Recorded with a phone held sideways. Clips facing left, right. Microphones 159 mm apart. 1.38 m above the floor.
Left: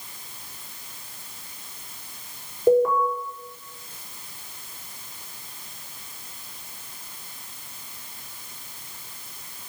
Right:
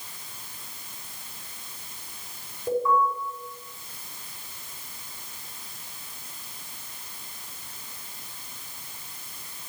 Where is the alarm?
80° left, 8 m.